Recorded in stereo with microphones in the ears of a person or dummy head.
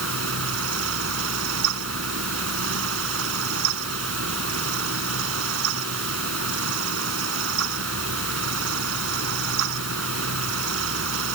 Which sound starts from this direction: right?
A fan, at 0.0 s.